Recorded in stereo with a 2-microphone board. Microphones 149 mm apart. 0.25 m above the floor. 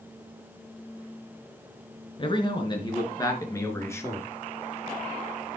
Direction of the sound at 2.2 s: 35° left (ahead or behind).